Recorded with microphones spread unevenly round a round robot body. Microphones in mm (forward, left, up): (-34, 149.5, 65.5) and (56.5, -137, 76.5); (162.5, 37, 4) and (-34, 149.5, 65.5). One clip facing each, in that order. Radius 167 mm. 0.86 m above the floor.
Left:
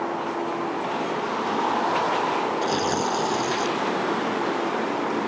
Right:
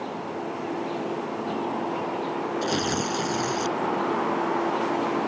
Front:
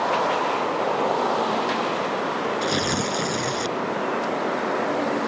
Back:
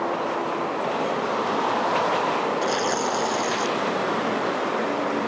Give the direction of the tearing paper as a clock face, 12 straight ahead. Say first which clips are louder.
Left 2 dB, even; 12 o'clock.